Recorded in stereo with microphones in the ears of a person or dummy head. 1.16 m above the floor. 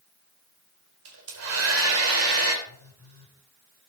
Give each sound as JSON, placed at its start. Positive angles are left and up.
{"t": 1.1, "sound": "a hair dryer", "side_deg": -80, "distance_m": 4.0}
{"t": 2.6, "sound": "a phone buzzing", "side_deg": -80, "distance_m": 9.0}